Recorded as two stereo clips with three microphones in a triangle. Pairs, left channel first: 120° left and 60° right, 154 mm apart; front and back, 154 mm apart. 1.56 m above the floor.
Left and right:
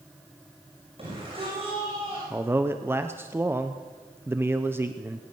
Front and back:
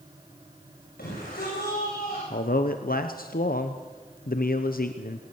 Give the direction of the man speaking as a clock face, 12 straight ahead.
11 o'clock.